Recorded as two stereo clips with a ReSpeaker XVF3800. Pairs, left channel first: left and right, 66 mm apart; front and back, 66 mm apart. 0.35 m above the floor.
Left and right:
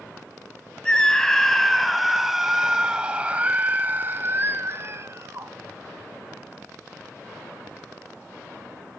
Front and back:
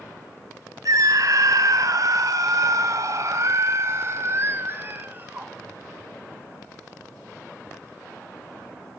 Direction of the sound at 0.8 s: 165° left.